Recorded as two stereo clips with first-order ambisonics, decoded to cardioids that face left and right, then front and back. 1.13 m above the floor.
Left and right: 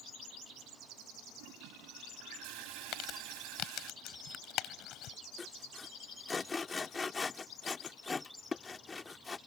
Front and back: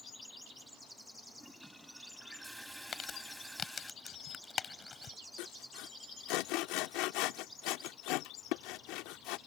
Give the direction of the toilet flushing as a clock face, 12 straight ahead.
3 o'clock.